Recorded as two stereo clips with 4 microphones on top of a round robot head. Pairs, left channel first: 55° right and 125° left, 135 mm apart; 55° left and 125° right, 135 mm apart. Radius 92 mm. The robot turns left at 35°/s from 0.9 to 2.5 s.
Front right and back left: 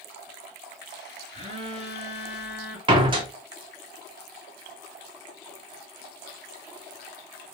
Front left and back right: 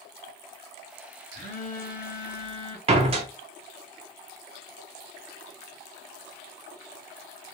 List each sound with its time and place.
1.3 s a phone buzzing: 80° left, 2 m; by 2.8 s 40° left, 2 m
2.9 s a door slam: 175° right, 0.8 m